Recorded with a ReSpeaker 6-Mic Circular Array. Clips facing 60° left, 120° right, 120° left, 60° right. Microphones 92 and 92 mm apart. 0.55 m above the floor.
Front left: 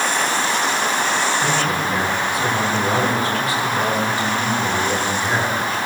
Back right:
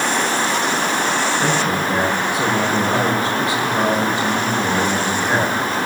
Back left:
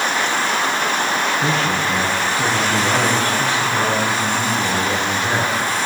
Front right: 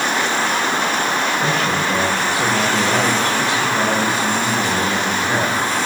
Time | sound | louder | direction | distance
1.4 | a man speaking | back right 1 dB, even | 170° left | 8.5 m